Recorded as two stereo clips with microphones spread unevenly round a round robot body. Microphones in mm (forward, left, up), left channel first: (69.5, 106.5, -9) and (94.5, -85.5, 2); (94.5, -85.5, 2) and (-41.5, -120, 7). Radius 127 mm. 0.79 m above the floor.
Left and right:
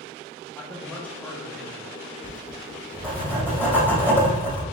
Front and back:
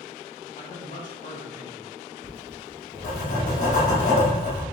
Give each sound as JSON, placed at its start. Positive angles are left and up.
{"t": 0.6, "sound": "a man speaking", "azimuth_deg": 15, "distance_m": 1.2}
{"t": 2.2, "sound": "writing", "azimuth_deg": 15, "distance_m": 2.0}